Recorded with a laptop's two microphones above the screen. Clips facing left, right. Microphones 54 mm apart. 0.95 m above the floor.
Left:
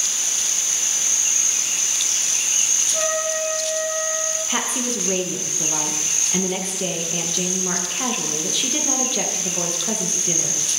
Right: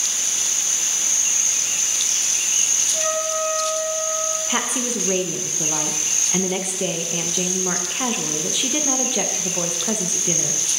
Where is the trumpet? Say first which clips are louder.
Even; 15° left (ahead or behind), 2 m.